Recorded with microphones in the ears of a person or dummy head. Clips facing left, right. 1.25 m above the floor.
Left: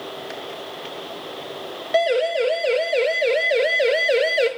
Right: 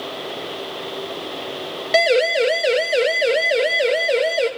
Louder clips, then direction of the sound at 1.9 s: Right 2 dB; 30° right (ahead or behind).